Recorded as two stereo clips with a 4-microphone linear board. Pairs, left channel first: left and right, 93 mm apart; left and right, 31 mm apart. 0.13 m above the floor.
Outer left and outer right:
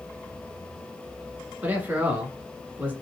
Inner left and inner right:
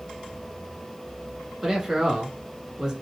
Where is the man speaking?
20° right (ahead or behind), 1.3 m.